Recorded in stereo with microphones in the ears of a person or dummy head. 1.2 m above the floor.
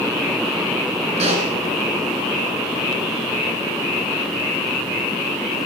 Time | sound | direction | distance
1.2 | a pop | 35° right (ahead or behind) | 2.5 m